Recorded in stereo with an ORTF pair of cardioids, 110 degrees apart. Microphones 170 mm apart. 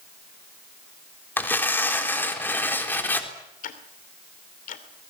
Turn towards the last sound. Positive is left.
turn(degrees=50)